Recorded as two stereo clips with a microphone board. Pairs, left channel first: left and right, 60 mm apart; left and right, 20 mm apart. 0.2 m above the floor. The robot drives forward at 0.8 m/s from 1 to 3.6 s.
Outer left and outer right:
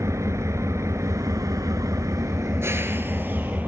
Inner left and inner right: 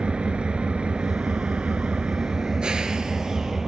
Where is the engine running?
55° right (ahead or behind), 1.1 m; by 3.7 s 30° right (ahead or behind), 1.9 m.